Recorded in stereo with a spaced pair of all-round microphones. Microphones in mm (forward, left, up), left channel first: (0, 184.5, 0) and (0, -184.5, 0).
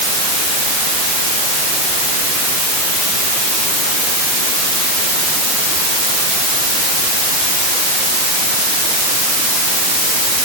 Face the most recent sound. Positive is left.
No sound to turn to.